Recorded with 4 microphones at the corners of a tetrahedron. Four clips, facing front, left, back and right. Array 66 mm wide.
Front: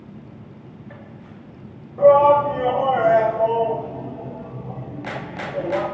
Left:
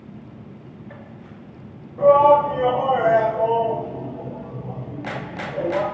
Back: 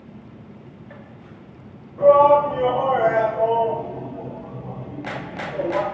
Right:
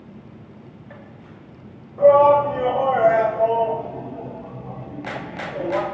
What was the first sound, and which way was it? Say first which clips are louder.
A shout: even, even; 35° right.